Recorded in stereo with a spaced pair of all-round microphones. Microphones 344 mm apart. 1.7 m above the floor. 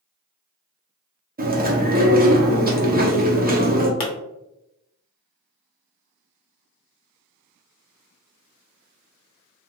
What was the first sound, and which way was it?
Chewing, 25° right (ahead or behind).